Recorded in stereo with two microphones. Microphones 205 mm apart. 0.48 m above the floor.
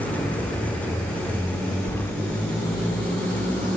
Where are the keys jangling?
10° left (ahead or behind), 0.7 m.